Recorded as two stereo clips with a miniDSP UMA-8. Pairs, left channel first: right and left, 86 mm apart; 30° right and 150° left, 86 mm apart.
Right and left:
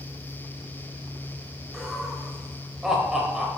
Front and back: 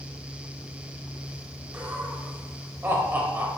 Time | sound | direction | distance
1.7 | laughter | 165° left | 0.9 m